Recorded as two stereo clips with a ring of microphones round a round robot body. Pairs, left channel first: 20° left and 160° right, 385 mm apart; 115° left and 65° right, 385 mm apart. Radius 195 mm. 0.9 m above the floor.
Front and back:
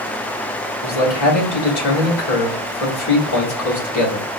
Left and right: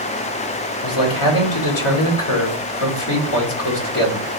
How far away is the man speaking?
About 2 m.